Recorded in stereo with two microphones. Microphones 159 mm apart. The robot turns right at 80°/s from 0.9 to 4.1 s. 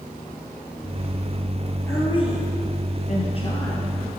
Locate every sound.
1.9 s a woman speaking: 15° left, 3 m; by 4.1 s 165° right, 3 m